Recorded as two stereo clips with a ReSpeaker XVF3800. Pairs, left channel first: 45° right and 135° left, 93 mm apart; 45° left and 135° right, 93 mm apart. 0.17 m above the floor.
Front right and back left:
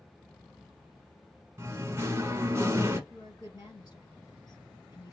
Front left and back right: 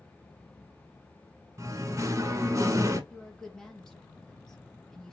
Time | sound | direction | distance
1.6 | singing | 175° right | 0.8 m
3.1 | a woman speaking | 35° right | 1.6 m